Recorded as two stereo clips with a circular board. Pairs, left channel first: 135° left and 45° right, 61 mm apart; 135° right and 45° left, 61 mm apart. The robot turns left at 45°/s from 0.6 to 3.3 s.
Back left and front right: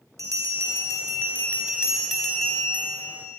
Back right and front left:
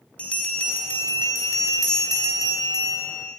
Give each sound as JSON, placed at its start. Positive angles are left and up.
{"t": 0.2, "sound": "a bell", "azimuth_deg": -65, "distance_m": 4.0}